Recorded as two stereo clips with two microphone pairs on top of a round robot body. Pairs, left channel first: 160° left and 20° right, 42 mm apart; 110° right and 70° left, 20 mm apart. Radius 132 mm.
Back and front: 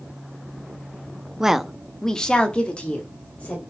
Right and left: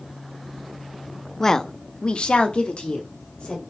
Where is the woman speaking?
50° right, 1.0 m; by 3.6 s 135° right, 2.5 m.